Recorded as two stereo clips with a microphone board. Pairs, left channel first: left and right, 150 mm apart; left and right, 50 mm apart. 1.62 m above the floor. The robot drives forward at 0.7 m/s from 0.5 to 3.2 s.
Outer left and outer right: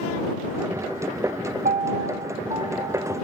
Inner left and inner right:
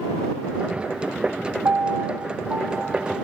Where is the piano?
70° right (ahead or behind), 0.6 m; by 3.1 s 25° right (ahead or behind), 1.3 m.